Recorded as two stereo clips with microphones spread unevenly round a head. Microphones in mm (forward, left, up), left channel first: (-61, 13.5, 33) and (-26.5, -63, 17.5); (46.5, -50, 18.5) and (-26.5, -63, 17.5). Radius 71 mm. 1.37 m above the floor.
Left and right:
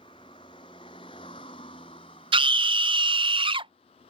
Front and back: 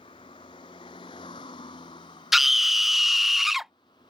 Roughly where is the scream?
Right.